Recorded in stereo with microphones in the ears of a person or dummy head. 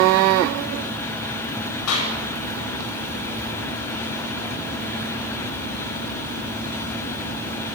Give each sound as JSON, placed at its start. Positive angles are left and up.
{"t": 1.9, "sound": "a clap", "side_deg": 80, "distance_m": 8.5}